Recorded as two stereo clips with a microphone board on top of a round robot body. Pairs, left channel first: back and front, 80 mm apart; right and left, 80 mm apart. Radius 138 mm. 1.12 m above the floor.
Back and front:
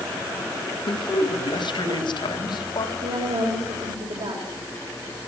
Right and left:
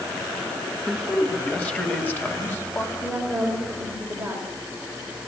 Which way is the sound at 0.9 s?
175° right.